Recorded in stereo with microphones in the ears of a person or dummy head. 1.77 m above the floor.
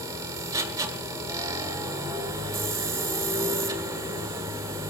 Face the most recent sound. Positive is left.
turn(degrees=-20)  # may be behind; listen again after turning